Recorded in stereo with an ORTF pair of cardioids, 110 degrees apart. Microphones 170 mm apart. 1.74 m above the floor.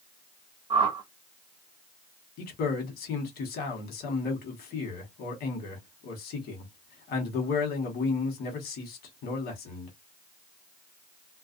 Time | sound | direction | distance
0.7 | a whoosh | 30° right | 0.8 m
2.4 | a man speaking | 70° left | 1.3 m